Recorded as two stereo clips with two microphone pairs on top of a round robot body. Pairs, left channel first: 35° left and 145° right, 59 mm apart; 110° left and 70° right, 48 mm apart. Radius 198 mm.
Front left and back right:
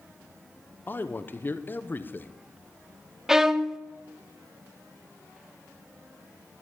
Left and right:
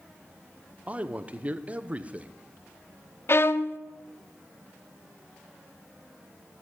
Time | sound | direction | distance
0.9 | a man speaking | 10° right | 1.2 m
3.3 | a violin | 135° left | 0.8 m